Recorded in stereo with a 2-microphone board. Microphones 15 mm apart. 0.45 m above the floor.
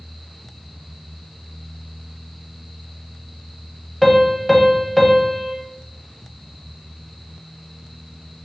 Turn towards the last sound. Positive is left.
turn(degrees=0)  # may be behind; listen again after turning